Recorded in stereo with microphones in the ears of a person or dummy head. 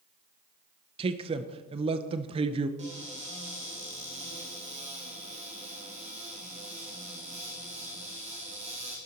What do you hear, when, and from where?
1.0 s a man speaking: 30° right (ahead or behind), 0.6 m
2.8 s a cupboard door: 30° right (ahead or behind), 2 m